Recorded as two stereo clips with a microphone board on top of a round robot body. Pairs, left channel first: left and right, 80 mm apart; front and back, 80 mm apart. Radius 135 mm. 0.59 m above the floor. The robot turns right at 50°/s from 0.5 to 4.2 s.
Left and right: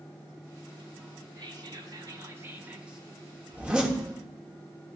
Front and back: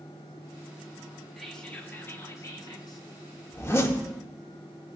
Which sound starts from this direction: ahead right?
A zipper, at 3.5 s.